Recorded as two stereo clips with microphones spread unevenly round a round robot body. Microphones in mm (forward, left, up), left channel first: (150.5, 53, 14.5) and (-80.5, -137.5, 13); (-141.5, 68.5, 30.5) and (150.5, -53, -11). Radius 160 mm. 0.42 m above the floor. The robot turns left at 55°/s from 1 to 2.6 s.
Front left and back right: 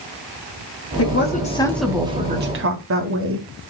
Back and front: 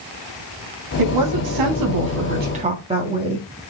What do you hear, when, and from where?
1.0 s a woman speaking: 5° right, 3 m; by 3.5 s 95° right, 3 m